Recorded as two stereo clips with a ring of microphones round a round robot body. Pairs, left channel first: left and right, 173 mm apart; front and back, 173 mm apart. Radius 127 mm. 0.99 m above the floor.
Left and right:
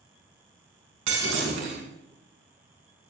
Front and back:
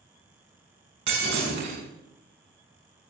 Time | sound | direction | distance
1.1 | breaking glass | 130° right | 6 m